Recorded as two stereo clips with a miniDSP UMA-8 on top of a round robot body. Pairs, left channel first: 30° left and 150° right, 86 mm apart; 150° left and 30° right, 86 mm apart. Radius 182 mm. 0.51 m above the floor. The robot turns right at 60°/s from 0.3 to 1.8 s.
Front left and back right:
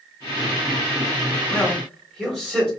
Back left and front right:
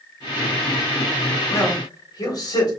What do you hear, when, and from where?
1.5 s a man speaking: 105° left, 3 m; by 2.7 s 120° left, 3 m